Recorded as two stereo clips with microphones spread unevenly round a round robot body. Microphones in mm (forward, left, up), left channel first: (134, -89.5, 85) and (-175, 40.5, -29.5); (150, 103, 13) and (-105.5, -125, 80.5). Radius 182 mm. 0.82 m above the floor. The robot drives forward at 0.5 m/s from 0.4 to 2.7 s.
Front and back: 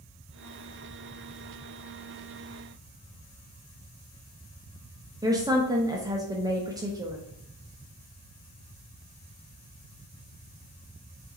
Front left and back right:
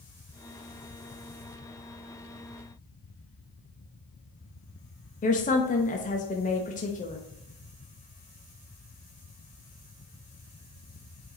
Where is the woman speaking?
95° left, 0.8 m.